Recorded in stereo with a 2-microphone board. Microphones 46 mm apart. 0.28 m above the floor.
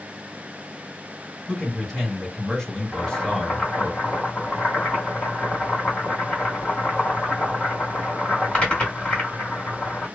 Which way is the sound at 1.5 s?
10° left (ahead or behind).